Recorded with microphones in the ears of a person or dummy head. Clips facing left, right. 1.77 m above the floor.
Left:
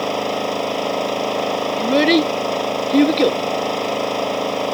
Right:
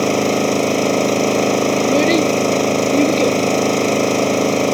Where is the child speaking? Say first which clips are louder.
Left 3 dB; 15° left (ahead or behind).